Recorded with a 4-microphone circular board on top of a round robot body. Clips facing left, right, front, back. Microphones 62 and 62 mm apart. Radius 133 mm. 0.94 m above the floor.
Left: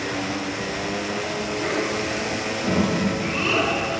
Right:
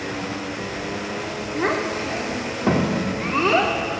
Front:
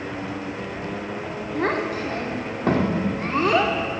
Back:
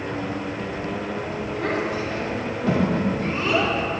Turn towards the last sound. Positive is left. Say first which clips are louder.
# right 4 dB, front 2 dB
turn(degrees=-40)